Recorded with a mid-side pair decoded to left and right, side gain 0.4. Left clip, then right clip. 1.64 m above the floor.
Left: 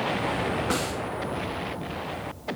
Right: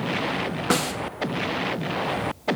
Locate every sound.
0.7 s a snare drum: 45° right, 3.5 m